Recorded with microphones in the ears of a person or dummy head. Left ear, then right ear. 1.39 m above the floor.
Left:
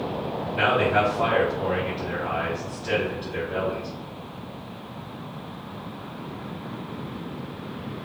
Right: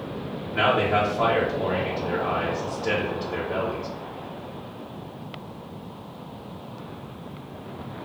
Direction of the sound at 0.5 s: 65° right (ahead or behind).